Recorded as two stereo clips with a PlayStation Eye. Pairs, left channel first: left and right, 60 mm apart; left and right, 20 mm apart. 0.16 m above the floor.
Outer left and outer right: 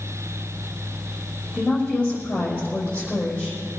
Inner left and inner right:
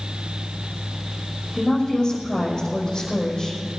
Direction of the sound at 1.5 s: 25° left (ahead or behind).